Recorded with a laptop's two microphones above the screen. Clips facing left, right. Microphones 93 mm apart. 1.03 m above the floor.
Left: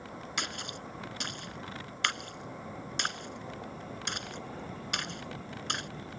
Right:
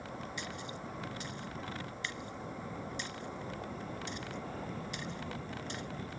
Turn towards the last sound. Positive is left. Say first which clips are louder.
# left 3 dB
turn(degrees=65)  # may be behind; listen again after turning